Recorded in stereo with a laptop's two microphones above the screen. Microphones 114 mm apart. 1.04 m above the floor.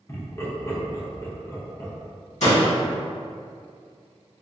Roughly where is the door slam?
Left.